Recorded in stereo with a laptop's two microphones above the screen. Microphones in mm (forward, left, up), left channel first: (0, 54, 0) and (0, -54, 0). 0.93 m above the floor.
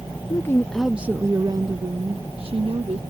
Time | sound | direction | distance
0.3 | a woman speaking | 30° left (ahead or behind) | ?